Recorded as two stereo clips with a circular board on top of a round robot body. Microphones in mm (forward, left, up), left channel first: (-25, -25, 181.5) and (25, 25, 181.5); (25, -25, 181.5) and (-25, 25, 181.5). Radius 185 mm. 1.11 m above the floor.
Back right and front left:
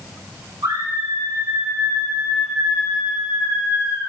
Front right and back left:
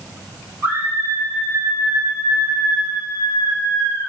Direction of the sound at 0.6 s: 70° left.